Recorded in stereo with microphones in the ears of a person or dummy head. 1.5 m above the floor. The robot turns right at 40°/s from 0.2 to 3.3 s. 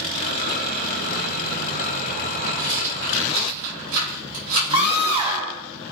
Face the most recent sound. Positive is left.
turn(degrees=-25)  # may be behind; listen again after turning